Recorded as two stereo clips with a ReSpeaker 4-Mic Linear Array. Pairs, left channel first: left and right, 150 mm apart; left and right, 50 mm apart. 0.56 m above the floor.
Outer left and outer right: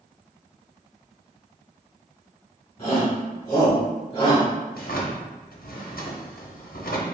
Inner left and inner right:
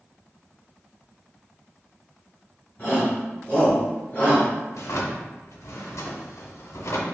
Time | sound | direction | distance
2.8 | a shout | 30° left (ahead or behind) | 1.6 m
4.7 | a drawer | 70° left (ahead or behind) | 0.7 m